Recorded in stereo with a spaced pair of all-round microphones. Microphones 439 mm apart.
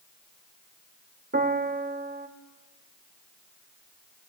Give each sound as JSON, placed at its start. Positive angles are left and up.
{"t": 1.3, "sound": "a piano", "side_deg": -25, "distance_m": 0.7}